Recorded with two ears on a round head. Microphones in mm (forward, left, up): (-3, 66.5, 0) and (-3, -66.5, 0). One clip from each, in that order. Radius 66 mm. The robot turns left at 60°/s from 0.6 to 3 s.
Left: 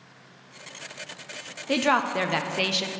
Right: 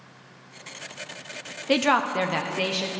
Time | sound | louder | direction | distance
1.7 | a woman speaking | right 1 dB | 160° right | 0.5 m